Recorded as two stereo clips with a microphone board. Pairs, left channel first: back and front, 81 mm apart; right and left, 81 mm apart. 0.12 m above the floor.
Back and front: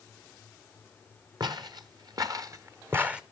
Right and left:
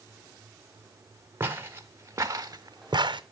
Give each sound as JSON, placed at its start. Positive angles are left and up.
{"t": 1.4, "sound": "footsteps", "azimuth_deg": 30, "distance_m": 1.7}